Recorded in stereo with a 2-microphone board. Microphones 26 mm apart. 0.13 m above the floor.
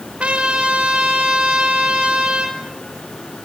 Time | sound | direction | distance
0.2 | a trumpet | 55° right (ahead or behind) | 3 m